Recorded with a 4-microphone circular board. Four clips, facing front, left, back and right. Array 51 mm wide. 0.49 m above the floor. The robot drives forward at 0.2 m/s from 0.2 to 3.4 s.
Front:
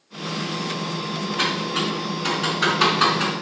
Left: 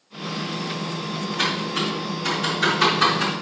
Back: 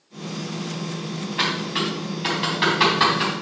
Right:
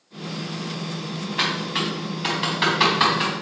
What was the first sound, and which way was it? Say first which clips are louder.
Typing on a keyboard: right 1 dB, back 1 dB; 125° right.